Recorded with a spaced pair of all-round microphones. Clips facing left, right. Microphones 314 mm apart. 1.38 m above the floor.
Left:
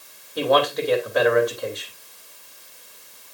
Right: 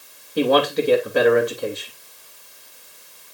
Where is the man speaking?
35° right (ahead or behind), 2.5 m.